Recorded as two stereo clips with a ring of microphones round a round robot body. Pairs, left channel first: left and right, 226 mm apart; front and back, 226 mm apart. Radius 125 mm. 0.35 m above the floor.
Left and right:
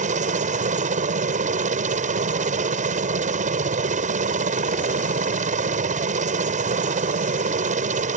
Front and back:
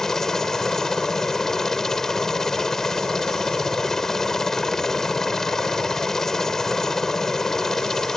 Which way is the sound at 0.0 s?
85° right.